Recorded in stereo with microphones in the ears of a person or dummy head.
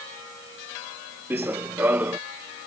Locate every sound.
1.3 s running footsteps: 10° right (ahead or behind)